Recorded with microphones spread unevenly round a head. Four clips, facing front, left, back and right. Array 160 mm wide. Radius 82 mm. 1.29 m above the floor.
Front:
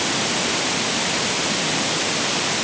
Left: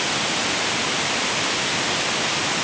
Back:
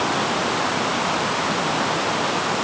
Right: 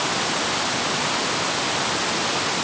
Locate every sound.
Only background noise.